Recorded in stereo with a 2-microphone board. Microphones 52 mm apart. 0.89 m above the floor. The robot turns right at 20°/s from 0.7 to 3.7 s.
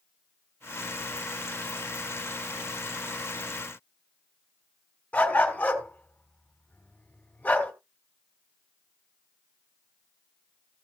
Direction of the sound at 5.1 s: 25° left (ahead or behind).